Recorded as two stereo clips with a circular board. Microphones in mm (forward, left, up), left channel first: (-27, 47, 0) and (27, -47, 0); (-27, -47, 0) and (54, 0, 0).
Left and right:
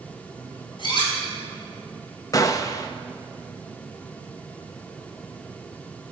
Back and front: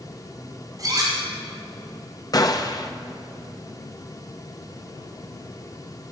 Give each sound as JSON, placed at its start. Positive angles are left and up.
{"t": 0.8, "sound": "cutlery clinking", "azimuth_deg": 80, "distance_m": 4.0}
{"t": 2.3, "sound": "a gunshot", "azimuth_deg": 170, "distance_m": 0.8}